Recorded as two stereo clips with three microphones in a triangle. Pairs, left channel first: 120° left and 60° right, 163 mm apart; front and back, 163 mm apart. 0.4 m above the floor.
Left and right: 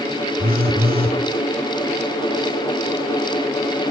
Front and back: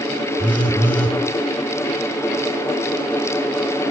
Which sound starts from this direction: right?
A phone buzzing, at 0.4 s.